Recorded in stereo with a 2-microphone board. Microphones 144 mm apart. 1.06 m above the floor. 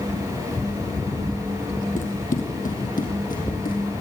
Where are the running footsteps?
65° left (ahead or behind), 2.5 m; by 3.8 s 75° left (ahead or behind), 3.5 m.